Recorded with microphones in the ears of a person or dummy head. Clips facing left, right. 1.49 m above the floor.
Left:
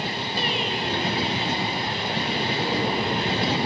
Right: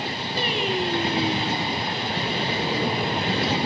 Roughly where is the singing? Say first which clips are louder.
Right 4 dB; right.